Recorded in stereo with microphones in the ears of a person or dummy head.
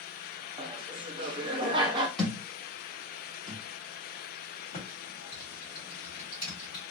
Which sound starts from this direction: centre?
A thud, at 2.2 s.